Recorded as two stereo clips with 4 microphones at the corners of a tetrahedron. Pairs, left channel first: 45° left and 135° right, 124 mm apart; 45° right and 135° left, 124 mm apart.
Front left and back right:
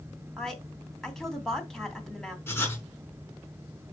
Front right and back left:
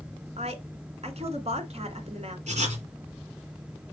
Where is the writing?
115° left, 5 m.